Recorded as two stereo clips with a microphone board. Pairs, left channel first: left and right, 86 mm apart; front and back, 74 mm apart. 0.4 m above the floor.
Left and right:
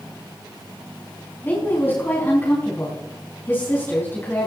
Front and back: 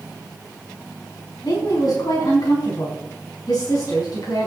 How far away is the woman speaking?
About 4 m.